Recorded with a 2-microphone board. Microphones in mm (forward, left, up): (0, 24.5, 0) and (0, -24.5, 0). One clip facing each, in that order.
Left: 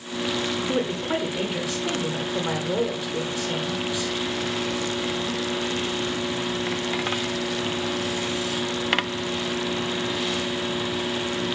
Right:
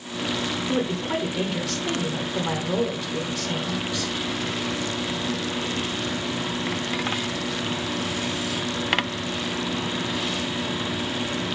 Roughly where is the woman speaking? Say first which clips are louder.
Right 1 dB; centre.